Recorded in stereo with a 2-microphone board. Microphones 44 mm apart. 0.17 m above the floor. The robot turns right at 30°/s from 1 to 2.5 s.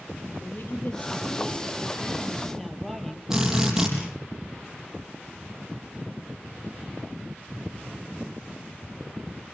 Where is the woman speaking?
130° left, 4.5 m; by 3.2 s 175° left, 4.5 m.